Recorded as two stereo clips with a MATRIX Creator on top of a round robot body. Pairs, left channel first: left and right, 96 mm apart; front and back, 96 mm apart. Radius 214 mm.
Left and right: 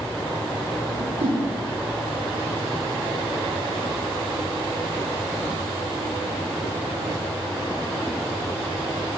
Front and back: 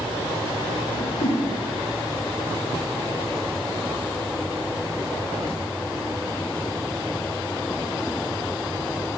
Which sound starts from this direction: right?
A whoosh, at 0.9 s.